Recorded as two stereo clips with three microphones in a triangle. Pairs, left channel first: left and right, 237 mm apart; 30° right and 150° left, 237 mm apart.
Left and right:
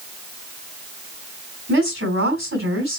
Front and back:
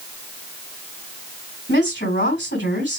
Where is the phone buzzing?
I don't hear a phone buzzing.